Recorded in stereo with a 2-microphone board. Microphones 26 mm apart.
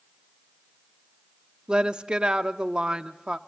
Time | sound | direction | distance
1.7 | a woman speaking | 30° right (ahead or behind) | 0.8 m